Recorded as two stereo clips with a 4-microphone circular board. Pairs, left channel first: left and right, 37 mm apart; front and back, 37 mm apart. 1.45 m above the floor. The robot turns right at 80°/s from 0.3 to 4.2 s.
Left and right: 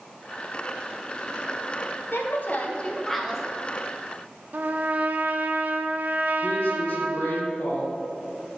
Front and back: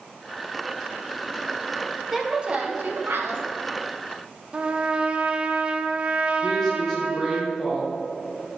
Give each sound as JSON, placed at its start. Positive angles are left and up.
{"t": 2.1, "sound": "a woman speaking", "azimuth_deg": 95, "distance_m": 1.2}
{"t": 4.5, "sound": "a trumpet", "azimuth_deg": -120, "distance_m": 0.6}
{"t": 6.4, "sound": "a woman speaking", "azimuth_deg": 80, "distance_m": 1.5}